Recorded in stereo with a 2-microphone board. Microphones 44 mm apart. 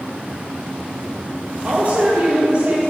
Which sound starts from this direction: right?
A woman speaking, at 1.6 s.